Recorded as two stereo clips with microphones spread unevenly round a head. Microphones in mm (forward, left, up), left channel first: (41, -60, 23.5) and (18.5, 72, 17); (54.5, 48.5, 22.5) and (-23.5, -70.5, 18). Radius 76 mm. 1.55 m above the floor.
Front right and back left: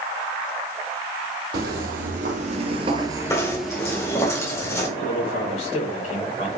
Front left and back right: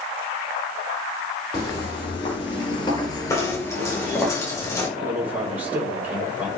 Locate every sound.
1.5 s footsteps: 115° left, 3 m; by 4.3 s 25° right, 2 m
3.3 s knocking: 10° right, 3.5 m
5.0 s a man speaking: 45° right, 4 m